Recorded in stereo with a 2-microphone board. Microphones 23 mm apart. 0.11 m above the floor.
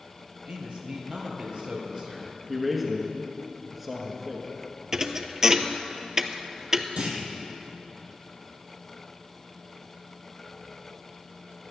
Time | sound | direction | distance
0.5 | a man speaking | 45° right (ahead or behind) | 3 m
2.5 | a man speaking | 5° right (ahead or behind) | 1.4 m
4.9 | a thud | 25° right (ahead or behind) | 0.6 m
7.0 | a clunk | 50° right (ahead or behind) | 1.9 m